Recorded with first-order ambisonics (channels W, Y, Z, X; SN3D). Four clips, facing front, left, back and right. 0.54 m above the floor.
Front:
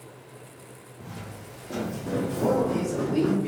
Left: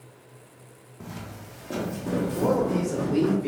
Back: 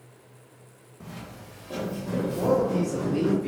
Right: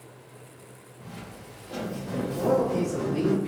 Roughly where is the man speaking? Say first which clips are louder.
Right 1 dB, back 1 dB; left.